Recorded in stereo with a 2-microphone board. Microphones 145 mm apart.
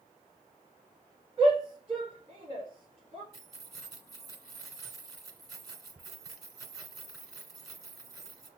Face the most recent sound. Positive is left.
turn(degrees=0)  # may be behind; listen again after turning